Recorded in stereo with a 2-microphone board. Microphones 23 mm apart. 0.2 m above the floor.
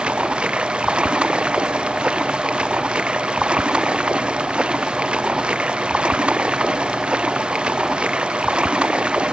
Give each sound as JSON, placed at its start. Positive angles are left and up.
{"t": 0.0, "sound": "running water", "side_deg": -50}